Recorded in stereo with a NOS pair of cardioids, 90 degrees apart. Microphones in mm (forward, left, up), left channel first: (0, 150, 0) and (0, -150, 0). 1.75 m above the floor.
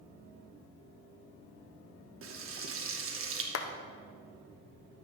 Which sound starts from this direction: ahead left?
A clap, at 3.5 s.